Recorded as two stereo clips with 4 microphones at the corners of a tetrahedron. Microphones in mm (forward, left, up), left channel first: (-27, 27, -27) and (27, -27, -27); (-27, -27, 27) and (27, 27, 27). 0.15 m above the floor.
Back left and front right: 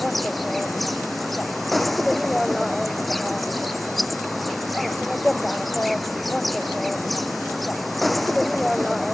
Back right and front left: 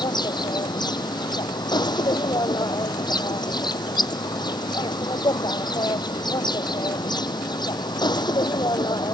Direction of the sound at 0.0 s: 135° right.